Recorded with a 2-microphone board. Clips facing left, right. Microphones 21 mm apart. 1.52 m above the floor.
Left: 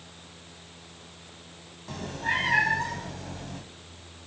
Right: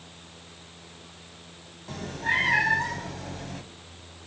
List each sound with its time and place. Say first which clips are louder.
1.9 s a cat meowing: right 2 dB; 5° left (ahead or behind), 1.6 m; by 3.6 s 10° right (ahead or behind), 1.5 m